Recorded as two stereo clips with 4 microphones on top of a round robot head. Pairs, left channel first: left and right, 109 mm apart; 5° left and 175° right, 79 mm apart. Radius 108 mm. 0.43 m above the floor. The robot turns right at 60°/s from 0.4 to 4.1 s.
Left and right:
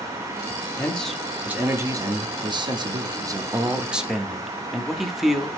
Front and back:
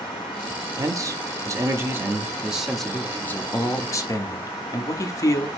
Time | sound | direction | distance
0.8 | a man speaking | 160° left | 0.9 m